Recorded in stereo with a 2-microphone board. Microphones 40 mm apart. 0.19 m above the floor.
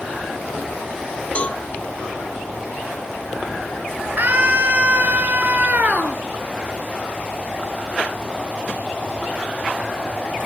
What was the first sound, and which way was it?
A cowbell, 30° left (ahead or behind).